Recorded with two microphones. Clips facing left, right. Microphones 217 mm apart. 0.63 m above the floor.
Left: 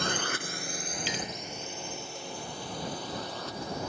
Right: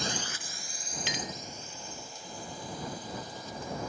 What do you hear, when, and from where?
0.0 s a drone: 60° left (ahead or behind); by 3.9 s 70° left (ahead or behind)
1.1 s a clink: 70° right (ahead or behind)